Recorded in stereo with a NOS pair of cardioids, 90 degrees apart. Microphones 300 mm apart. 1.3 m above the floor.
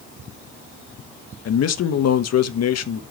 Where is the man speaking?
55° left, 1.3 m.